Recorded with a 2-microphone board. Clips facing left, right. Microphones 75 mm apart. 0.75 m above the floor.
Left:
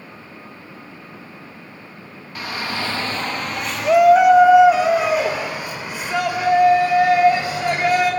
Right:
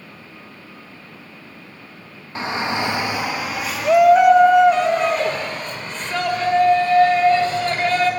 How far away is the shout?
About 1.0 m.